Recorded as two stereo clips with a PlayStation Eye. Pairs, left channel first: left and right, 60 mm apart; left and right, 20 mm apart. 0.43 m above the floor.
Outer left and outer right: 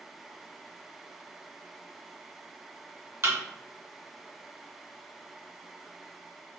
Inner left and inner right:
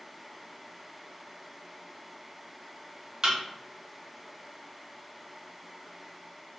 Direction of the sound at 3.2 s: 45° right (ahead or behind).